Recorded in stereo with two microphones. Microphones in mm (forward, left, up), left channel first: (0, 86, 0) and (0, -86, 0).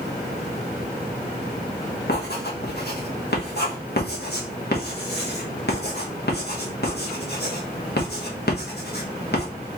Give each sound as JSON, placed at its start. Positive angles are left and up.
{"t": 2.1, "sound": "writing", "side_deg": 70, "distance_m": 1.3}